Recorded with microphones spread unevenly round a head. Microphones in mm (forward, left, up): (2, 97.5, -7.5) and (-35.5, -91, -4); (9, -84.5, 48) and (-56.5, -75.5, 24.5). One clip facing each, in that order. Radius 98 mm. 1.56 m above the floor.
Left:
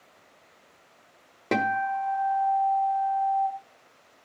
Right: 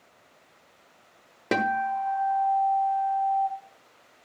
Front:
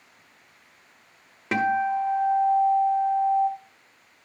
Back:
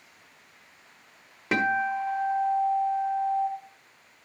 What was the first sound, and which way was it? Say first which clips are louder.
A guitar: even, front 2 dB; 30° right.